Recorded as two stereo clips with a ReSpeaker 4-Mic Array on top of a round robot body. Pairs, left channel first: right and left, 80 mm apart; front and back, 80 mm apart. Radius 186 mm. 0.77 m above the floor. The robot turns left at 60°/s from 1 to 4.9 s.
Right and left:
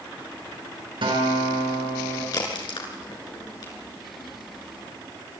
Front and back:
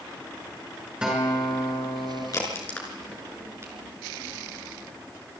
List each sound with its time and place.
1.0 s a guitar: 100° left, 6 m; by 2.2 s 25° left, 6 m
2.3 s a crack: 45° right, 6 m; by 3.7 s 130° right, 6 m